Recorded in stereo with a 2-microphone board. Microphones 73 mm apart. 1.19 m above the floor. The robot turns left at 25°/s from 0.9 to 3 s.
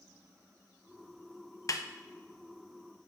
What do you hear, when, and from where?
1.7 s a snare drum: 55° left (ahead or behind), 0.6 m